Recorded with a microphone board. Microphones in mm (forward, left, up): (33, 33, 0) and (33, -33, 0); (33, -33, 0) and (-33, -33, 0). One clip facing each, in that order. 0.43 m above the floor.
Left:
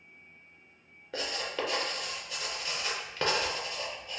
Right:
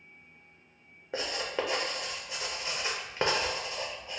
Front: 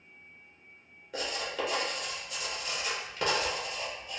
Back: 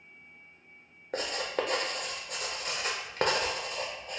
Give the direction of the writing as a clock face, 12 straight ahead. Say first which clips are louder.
Right 2 dB, back 3 dB; 5 o'clock.